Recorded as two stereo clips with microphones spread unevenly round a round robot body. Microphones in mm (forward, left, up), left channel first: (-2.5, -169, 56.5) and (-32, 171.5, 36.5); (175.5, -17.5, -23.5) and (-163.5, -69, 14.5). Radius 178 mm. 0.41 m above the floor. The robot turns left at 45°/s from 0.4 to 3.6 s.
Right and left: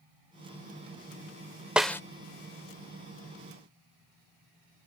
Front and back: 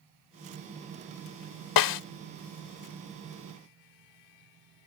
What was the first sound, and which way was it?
A snare drum, 10° left.